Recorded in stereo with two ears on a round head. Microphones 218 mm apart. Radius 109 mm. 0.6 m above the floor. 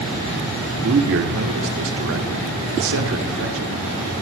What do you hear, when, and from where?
0.8 s a man speaking: 55° right (ahead or behind), 1.7 m